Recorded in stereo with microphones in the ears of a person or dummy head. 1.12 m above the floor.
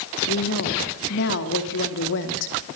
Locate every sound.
0.3 s a woman speaking: 55° left (ahead or behind), 2.5 m